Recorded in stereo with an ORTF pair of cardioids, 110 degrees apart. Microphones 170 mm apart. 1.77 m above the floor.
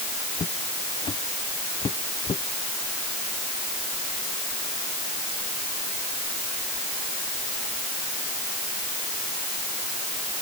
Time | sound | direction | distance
0.4 | footsteps | 30° left | ?